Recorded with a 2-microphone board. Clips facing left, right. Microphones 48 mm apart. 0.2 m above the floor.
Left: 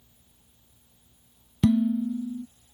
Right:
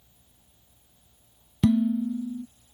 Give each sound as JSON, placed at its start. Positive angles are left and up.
{"t": 1.6, "sound": "dishes clattering", "side_deg": 0}